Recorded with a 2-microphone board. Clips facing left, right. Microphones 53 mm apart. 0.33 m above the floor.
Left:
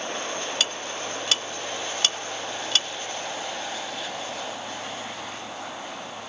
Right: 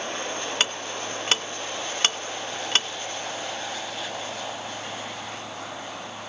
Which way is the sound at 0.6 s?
40° right (ahead or behind).